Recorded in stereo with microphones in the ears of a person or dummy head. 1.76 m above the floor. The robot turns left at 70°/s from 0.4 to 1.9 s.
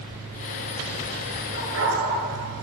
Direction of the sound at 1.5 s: 80° right.